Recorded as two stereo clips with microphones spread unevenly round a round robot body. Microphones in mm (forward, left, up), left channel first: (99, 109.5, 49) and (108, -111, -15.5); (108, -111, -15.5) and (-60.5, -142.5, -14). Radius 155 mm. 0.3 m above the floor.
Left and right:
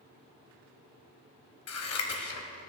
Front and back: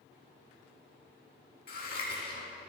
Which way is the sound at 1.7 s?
65° left.